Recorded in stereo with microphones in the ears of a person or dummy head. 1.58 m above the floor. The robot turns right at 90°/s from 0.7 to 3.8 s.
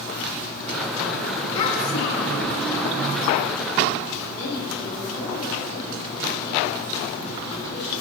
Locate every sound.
1.6 s a child speaking: 25° left, 2.5 m; by 2.5 s 110° left, 2.5 m
4.3 s a woman speaking: 30° left (ahead or behind), 3.5 m